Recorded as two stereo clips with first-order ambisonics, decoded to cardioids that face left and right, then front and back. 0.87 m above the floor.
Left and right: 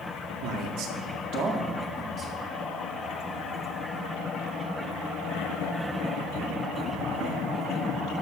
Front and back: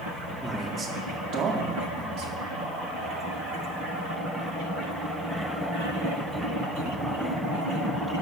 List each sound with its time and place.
0.4 s a man speaking: 105° right, 2 m; by 2.5 s 160° right, 2.5 m